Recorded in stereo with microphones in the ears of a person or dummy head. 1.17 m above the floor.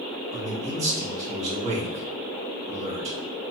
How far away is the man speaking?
About 1.2 m.